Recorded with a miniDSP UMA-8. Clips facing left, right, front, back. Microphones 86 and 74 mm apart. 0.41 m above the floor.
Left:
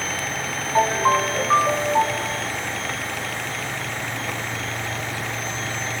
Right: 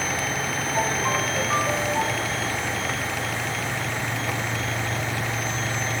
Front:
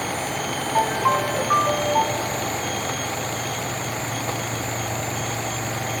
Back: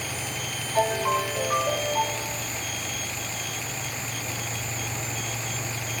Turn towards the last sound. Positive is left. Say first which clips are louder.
# left 8 dB, front 3 dB
turn(degrees=45)